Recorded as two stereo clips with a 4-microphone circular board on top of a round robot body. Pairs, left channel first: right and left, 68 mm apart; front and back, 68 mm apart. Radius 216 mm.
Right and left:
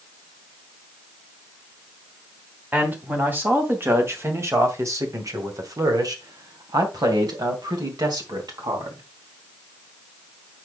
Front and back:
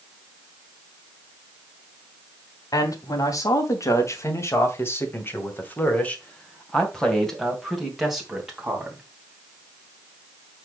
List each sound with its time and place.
2.7 s a man speaking: 25° left, 3 m; by 9.0 s 100° left, 3.5 m